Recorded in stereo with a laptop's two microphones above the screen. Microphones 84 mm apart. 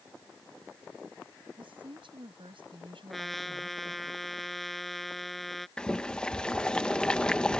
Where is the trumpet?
Centre (ahead or behind).